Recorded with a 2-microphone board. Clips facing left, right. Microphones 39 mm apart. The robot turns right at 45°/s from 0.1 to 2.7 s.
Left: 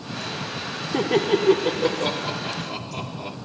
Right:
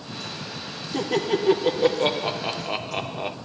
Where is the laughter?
155° left, 1.2 m; by 3.4 s 125° right, 1.2 m.